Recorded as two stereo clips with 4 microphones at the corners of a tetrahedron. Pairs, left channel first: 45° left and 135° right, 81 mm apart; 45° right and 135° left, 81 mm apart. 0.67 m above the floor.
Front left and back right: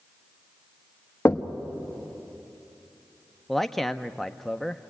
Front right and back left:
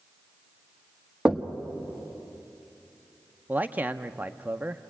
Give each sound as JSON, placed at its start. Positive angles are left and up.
{"t": 1.2, "sound": "knocking", "azimuth_deg": 70, "distance_m": 1.0}
{"t": 3.5, "sound": "a man speaking", "azimuth_deg": 125, "distance_m": 0.7}